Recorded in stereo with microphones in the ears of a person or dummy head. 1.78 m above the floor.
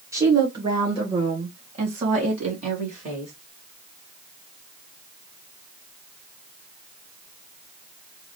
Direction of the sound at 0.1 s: 20° right (ahead or behind).